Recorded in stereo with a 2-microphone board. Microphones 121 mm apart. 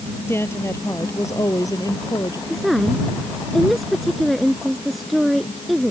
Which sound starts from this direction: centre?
A woman speaking, at 2.5 s.